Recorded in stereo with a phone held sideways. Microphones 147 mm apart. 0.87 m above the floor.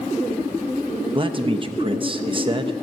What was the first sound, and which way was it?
A man speaking, 35° right (ahead or behind).